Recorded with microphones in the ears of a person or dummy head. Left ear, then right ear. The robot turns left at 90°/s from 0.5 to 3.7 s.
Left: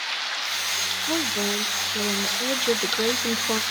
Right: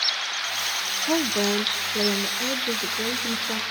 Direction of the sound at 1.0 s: 75° right.